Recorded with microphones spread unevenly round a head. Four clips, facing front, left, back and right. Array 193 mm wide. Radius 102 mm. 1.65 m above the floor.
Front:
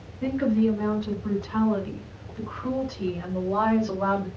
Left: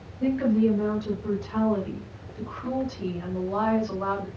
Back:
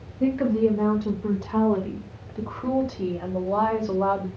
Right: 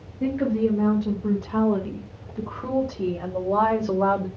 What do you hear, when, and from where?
0.2 s a woman speaking: 155° right, 6 m; by 4.3 s 100° right, 2.5 m